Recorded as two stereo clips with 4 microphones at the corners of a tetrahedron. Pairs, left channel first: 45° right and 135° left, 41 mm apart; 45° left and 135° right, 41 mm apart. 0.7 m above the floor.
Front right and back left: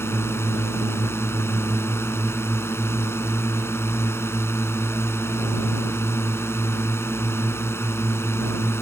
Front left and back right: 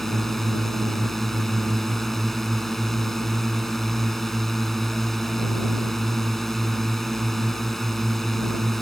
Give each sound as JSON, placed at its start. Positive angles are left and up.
{"t": 0.0, "sound": "a drone", "azimuth_deg": -40}